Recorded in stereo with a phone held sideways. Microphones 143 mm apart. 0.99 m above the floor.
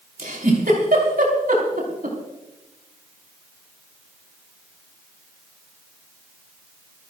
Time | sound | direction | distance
0.2 | a giggle | 85° right | 5 m